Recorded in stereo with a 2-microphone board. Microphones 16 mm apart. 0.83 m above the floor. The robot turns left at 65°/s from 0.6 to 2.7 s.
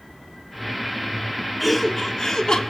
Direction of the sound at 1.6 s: 170° right.